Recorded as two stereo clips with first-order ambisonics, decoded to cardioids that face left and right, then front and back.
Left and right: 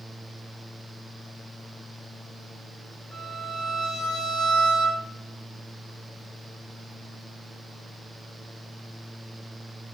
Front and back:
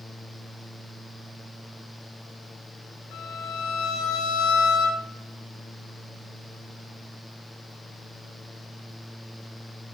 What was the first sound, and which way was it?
A violin, 10° left.